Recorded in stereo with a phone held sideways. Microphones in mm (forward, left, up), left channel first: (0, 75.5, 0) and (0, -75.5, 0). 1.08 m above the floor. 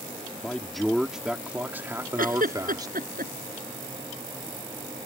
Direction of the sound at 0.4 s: 5° left (ahead or behind).